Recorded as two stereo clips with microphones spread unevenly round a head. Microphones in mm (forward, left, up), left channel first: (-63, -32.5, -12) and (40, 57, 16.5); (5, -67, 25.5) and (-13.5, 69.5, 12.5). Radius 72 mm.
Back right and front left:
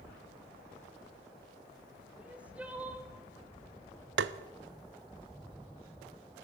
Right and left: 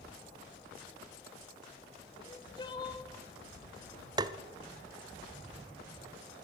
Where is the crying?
30° right, 1.1 m.